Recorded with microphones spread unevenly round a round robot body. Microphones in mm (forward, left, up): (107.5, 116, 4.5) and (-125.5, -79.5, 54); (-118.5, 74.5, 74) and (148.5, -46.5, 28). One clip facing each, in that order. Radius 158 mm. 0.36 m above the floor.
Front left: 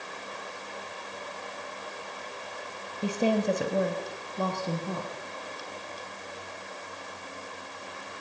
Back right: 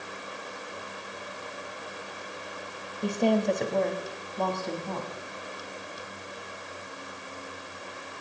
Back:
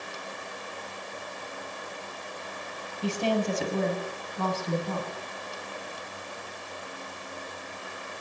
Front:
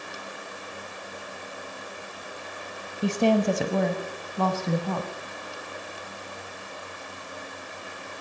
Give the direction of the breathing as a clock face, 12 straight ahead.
I don't hear breathing.